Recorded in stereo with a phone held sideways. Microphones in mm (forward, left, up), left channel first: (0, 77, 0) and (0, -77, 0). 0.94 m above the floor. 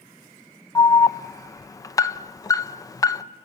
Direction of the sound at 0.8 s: 20° left (ahead or behind).